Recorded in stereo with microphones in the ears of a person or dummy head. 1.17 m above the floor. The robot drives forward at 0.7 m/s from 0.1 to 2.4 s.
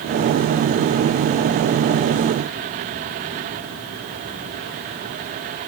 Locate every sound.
Only background noise.